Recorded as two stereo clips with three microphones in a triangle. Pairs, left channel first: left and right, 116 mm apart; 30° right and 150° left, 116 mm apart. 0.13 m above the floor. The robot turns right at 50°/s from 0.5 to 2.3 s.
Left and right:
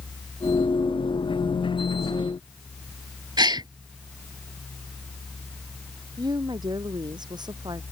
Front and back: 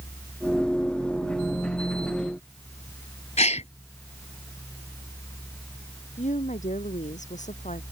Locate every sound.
3.4 s a gasp: 40° right
6.2 s a woman speaking: 35° right